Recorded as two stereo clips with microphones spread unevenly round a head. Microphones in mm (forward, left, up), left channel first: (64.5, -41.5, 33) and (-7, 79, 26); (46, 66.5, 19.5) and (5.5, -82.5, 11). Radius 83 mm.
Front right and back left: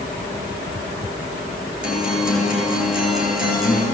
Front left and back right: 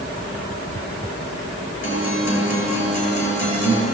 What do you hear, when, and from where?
1.8 s a guitar: 35° left, 8.5 m